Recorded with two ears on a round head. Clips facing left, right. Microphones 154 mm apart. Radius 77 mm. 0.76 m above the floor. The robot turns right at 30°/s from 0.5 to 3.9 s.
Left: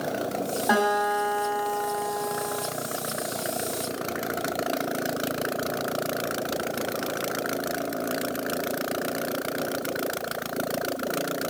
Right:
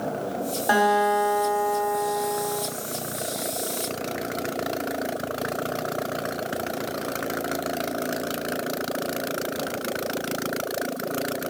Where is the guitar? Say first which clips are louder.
Right 4 dB; 35° right, 1.3 m; by 2.6 s 20° left, 1.3 m.